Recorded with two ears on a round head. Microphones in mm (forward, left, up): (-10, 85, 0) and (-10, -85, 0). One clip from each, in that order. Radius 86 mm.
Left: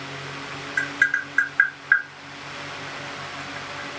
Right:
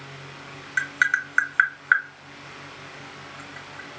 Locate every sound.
0.8 s tapping: 30° right (ahead or behind), 0.9 m